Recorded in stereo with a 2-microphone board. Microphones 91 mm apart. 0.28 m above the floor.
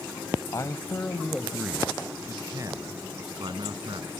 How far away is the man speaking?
About 1.3 m.